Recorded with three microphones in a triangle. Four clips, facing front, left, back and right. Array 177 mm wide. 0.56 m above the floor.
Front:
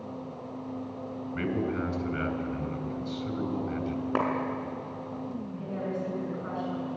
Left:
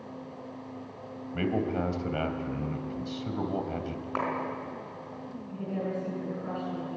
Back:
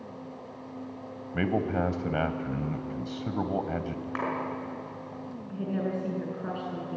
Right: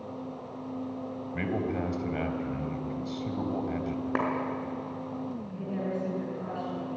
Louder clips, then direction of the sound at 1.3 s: Left 2 dB, back 3 dB; 170° left.